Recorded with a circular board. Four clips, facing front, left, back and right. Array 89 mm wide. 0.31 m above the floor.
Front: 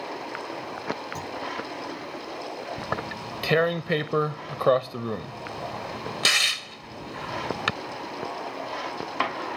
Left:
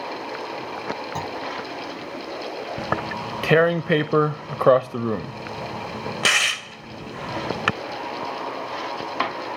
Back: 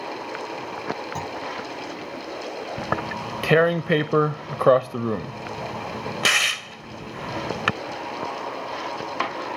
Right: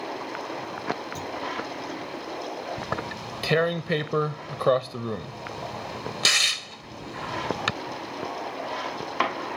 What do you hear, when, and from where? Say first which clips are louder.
1.1 s a clunk: left 4 dB, back 4 dB; 120° left
2.8 s tearing paper: left 5 dB, back 7 dB; 130° left